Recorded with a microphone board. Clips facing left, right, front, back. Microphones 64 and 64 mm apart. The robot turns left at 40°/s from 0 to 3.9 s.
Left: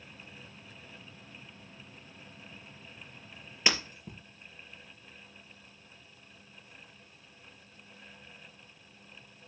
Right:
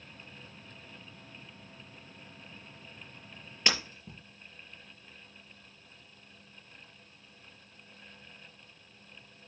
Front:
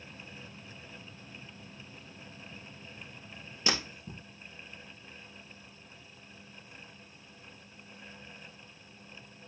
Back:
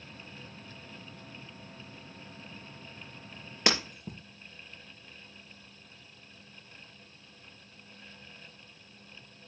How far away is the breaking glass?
About 3.5 m.